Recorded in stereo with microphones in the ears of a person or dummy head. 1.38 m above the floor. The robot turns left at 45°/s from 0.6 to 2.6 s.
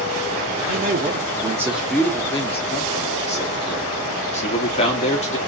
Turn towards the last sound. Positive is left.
turn(degrees=145)